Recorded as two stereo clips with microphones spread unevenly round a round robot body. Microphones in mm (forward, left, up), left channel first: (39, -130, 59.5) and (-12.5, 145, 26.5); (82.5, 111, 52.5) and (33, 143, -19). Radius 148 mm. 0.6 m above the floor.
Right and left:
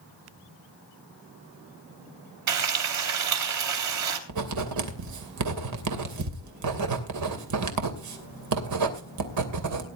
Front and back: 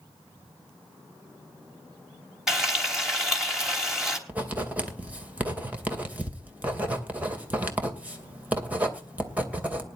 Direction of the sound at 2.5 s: 80° left.